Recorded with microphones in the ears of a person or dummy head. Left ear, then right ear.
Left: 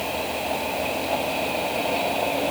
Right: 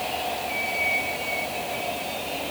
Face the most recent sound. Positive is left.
No sound to turn to.